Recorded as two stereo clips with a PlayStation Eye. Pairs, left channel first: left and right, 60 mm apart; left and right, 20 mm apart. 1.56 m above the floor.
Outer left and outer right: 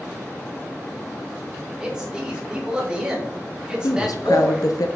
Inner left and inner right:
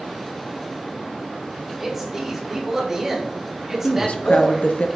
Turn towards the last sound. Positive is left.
turn(degrees=80)